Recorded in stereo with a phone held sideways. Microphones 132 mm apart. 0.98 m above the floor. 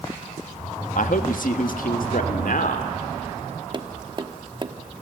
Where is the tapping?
35° right (ahead or behind), 1.2 m.